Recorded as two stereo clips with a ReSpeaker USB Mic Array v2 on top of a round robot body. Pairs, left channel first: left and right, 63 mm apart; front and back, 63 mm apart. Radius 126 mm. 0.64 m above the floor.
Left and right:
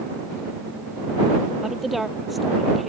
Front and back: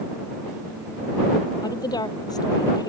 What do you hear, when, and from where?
1.6 s a woman speaking: 5° right; by 2.9 s straight ahead